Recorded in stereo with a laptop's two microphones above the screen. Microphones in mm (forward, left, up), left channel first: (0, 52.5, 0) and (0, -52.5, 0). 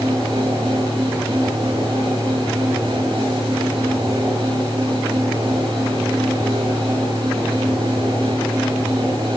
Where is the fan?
65° right (ahead or behind), 3.5 m.